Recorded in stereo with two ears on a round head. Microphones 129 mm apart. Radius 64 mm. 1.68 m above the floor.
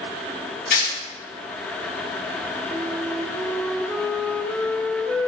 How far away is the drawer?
No drawer in this recording.